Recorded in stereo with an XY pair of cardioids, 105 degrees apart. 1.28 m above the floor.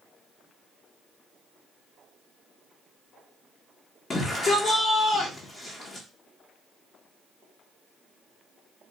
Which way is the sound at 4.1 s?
40° left.